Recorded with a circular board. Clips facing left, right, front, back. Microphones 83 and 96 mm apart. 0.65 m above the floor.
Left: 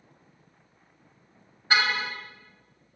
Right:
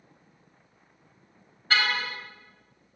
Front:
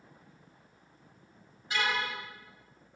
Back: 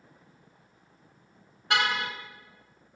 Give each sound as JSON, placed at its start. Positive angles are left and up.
{"t": 1.7, "sound": "a car horn", "azimuth_deg": 165, "distance_m": 4.5}